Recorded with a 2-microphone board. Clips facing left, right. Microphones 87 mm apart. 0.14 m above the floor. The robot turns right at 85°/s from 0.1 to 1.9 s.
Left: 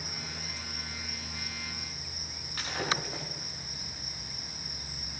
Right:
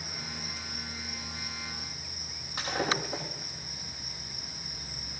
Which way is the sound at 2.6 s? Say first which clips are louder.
Right 3 dB; 20° right (ahead or behind).